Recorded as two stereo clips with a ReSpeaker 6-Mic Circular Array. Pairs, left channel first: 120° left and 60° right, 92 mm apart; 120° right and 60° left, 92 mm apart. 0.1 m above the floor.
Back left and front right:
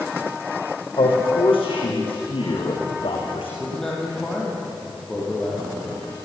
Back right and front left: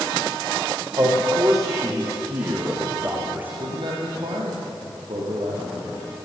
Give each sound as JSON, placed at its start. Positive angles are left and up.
{"t": 1.0, "sound": "a man speaking", "azimuth_deg": 110, "distance_m": 7.0}
{"t": 3.6, "sound": "a man speaking", "azimuth_deg": 35, "distance_m": 5.0}